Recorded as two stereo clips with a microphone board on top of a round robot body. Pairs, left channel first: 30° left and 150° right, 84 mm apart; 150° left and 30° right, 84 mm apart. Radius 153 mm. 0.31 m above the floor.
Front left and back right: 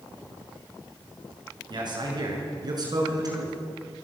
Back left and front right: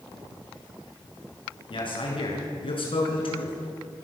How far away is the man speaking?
About 7 m.